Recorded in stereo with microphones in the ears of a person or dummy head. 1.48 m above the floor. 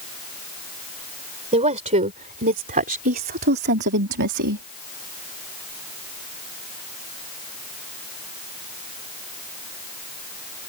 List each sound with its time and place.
1.5 s a woman speaking: 30° right (ahead or behind); by 4.7 s 75° right (ahead or behind)